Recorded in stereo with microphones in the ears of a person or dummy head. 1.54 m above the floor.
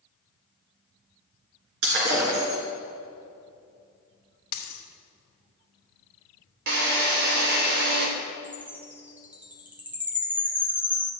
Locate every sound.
1.8 s breaking glass: 60° right (ahead or behind), 3 m
4.5 s a dropped coin: 55° left (ahead or behind), 1.6 m
6.7 s a drill: 55° right (ahead or behind), 2.5 m
8.4 s a chime: 10° right (ahead or behind), 0.9 m